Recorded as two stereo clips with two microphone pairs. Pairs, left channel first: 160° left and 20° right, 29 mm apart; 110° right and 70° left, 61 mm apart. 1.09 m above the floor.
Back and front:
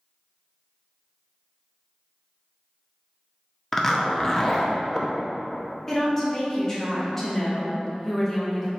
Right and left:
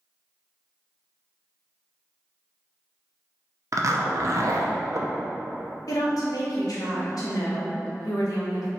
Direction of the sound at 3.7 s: 85° left.